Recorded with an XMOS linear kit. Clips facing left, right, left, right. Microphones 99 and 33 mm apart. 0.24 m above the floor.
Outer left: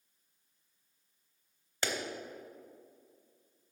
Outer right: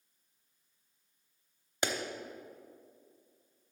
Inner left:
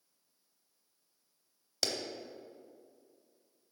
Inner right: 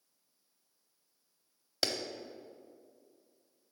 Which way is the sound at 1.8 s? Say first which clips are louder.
Outer right 2 dB, inner right 1 dB; 20° right (ahead or behind).